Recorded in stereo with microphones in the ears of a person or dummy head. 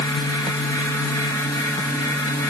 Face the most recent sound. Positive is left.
No sound to turn to.